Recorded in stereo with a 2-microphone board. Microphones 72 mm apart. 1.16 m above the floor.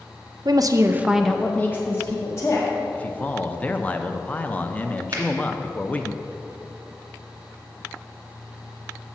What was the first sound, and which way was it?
A woman speaking, 65° right (ahead or behind).